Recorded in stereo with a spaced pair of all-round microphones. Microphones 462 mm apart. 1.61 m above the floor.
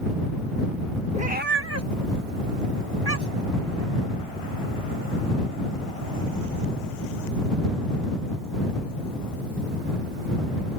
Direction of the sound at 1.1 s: 15° right (ahead or behind).